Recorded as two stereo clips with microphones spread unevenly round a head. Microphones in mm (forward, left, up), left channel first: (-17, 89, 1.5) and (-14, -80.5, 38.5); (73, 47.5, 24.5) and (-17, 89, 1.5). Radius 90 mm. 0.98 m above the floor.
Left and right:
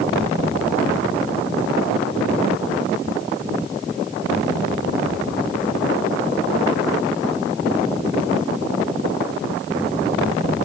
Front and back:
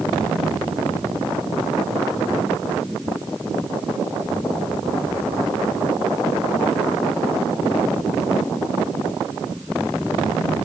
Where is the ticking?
I don't hear ticking.